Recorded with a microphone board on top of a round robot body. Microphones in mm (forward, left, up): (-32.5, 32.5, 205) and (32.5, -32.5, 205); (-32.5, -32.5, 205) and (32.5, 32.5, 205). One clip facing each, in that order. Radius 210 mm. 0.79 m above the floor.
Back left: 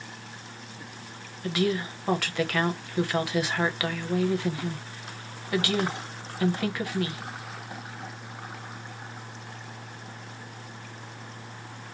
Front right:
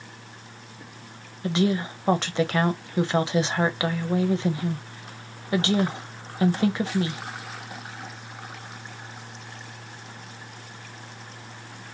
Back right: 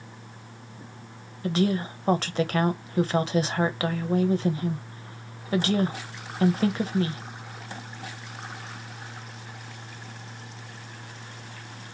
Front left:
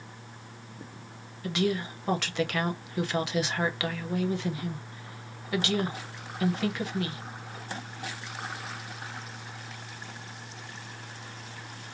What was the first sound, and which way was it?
A woman speaking, 100° right.